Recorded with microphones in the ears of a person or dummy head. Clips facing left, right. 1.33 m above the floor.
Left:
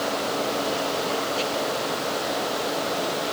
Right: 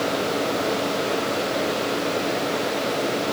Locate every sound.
Only background noise.